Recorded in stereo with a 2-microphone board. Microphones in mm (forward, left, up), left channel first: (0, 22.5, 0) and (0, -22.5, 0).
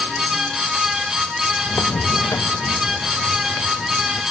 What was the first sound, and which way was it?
Footsteps, 45° left (ahead or behind).